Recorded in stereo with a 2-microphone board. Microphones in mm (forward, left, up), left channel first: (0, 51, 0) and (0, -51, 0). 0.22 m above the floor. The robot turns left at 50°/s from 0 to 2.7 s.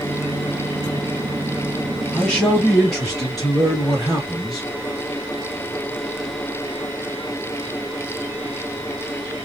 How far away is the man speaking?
About 1.3 m.